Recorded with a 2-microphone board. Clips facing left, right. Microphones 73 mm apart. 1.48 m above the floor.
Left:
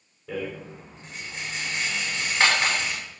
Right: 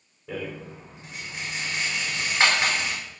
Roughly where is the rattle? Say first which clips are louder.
Left 2 dB; centre.